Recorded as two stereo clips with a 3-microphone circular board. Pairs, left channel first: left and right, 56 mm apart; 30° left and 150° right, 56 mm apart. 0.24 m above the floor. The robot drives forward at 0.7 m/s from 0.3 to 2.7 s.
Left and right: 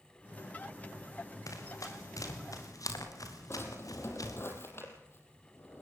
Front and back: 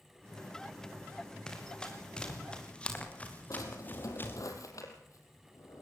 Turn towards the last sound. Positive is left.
turn(degrees=45)